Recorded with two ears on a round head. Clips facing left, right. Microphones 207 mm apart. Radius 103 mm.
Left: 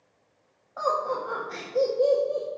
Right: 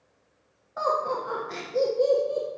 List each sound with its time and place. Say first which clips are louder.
0.8 s laughter: even; 35° right (ahead or behind), 1.4 m